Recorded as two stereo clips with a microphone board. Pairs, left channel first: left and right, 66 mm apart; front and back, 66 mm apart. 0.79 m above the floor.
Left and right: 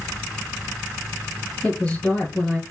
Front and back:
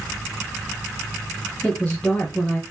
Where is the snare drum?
No snare drum in this recording.